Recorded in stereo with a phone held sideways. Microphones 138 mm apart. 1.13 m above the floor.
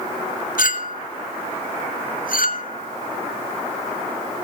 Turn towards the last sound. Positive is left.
turn(degrees=80)